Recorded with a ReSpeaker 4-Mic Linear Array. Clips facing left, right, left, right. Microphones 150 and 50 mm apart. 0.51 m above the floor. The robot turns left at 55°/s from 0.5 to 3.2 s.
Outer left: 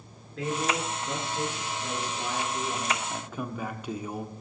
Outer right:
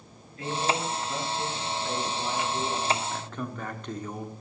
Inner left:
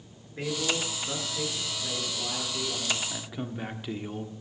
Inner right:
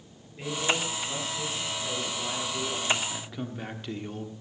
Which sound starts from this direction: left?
A man speaking, at 0.4 s.